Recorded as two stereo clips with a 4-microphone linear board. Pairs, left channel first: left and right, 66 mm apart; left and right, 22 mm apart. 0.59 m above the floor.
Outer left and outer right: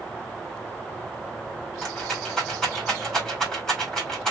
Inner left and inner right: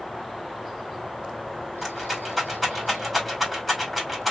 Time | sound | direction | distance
1.8 | a rattle | 10° left (ahead or behind) | 2.5 m